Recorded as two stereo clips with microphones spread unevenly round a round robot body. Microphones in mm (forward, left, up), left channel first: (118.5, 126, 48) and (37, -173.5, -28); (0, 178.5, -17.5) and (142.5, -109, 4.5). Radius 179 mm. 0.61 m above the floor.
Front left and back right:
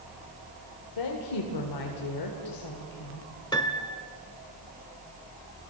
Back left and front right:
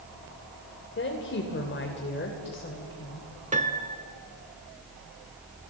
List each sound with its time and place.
1.0 s a woman speaking: 65° left, 1.9 m
3.5 s a piano: straight ahead, 1.1 m